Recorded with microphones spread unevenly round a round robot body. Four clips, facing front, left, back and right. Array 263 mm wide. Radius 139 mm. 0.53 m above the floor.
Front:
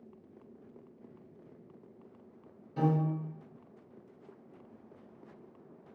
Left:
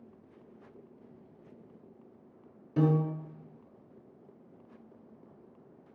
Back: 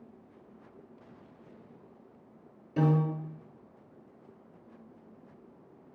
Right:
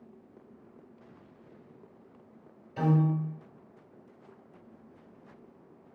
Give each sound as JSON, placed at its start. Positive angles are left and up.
{"t": 2.8, "sound": "a piano", "azimuth_deg": 115, "distance_m": 0.9}